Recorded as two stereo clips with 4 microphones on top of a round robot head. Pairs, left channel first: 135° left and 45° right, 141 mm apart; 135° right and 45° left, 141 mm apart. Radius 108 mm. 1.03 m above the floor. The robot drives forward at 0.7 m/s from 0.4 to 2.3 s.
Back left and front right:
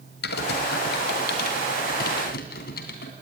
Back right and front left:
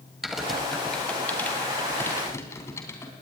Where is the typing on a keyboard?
135° left, 1.9 m; by 3.1 s 155° left, 3 m.